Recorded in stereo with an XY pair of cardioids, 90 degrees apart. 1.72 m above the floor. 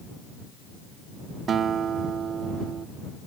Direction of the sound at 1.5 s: 65° right.